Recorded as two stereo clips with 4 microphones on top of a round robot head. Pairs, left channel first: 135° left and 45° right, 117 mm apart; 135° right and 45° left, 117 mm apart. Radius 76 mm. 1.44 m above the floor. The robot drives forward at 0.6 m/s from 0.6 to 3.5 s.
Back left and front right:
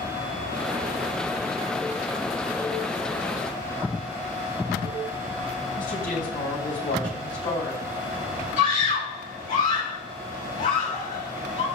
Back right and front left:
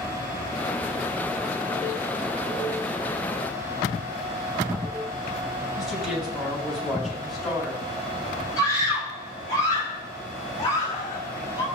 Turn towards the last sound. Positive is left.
turn(degrees=160)